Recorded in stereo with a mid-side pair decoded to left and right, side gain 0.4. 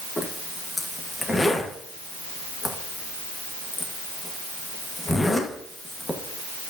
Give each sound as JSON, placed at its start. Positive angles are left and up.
{"t": 0.2, "sound": "a zipper", "azimuth_deg": 30, "distance_m": 1.9}